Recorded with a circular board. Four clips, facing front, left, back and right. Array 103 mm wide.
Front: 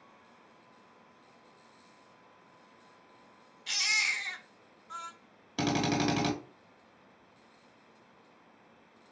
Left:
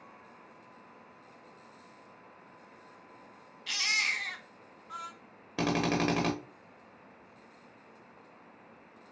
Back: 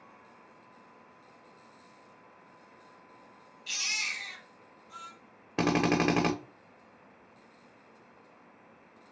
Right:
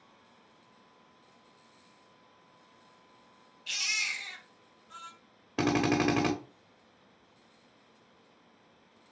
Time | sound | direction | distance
3.7 | a baby crying | 55° left | 0.7 m
5.6 | a drill | 165° right | 0.8 m